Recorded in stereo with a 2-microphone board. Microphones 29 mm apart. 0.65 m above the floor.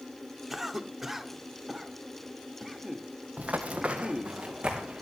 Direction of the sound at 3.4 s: 50° right (ahead or behind).